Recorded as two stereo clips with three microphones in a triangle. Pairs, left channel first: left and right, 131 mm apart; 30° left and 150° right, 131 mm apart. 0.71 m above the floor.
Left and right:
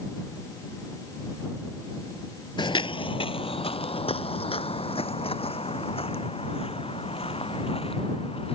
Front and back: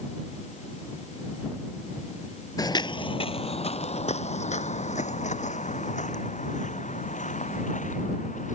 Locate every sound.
2.6 s footsteps: 70° left; by 8.6 s 45° left